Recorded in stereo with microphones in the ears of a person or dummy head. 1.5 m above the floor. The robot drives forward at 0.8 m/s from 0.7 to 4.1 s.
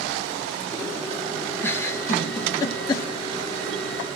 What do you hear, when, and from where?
1.6 s a giggle: 10° left (ahead or behind), 1.9 m; by 3.1 s 25° left (ahead or behind), 0.8 m